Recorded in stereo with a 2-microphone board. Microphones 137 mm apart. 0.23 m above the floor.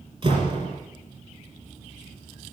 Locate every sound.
0.2 s a door slam: 40° right (ahead or behind), 4.5 m